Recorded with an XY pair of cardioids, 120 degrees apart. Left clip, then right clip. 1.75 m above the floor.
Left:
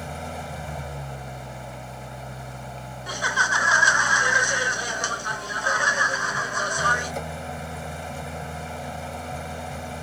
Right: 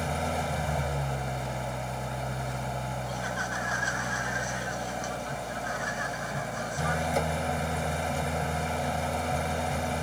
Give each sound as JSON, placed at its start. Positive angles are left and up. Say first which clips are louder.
{"t": 0.0, "sound": "an engine running", "louder": "right 4 dB", "azimuth_deg": -25}
{"t": 3.1, "sound": "laughter", "louder": "left 14 dB", "azimuth_deg": 65}